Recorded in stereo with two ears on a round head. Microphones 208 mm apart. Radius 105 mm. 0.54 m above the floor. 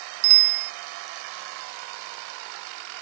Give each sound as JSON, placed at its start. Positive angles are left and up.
{"t": 0.2, "sound": "a bicycle bell", "side_deg": -85}